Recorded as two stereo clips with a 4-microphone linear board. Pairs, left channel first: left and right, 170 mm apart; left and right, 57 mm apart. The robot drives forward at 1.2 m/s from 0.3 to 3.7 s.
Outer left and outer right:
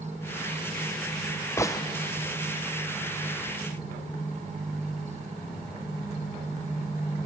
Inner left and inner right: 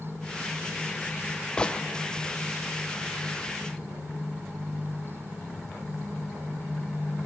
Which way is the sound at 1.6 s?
15° left (ahead or behind).